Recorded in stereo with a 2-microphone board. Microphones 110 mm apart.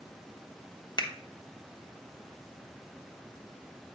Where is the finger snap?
40° left (ahead or behind), 1.0 m.